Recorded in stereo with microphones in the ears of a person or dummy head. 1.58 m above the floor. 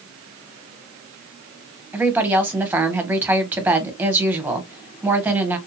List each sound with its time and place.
1.9 s a woman speaking: 10° right (ahead or behind), 1.3 m